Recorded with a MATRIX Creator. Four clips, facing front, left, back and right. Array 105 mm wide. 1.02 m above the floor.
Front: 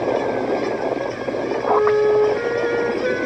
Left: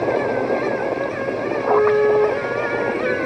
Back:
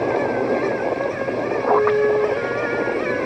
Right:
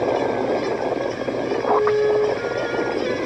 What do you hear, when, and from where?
1.7 s a flute: 25° left, 1.7 m